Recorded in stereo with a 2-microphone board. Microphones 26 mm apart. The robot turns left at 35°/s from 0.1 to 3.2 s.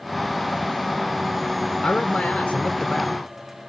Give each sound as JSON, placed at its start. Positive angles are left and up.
{"t": 1.8, "sound": "a man speaking", "azimuth_deg": 90, "distance_m": 0.5}